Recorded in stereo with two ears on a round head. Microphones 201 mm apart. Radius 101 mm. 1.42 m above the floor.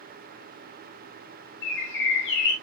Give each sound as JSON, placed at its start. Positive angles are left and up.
{"t": 1.6, "sound": "a bird", "side_deg": 60, "distance_m": 3.5}